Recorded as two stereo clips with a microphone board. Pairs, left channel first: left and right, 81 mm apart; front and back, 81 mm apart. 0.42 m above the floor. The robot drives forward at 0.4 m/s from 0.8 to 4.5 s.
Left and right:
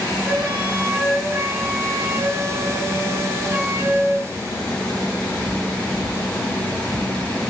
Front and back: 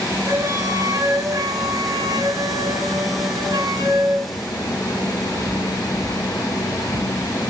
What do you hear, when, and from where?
0.2 s a flute: 155° right, 2.5 m; by 4.3 s 165° right, 4 m